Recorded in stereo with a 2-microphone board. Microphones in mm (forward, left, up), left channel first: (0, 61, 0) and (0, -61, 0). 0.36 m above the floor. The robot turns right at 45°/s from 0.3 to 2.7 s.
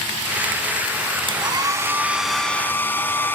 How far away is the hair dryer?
About 1.4 m.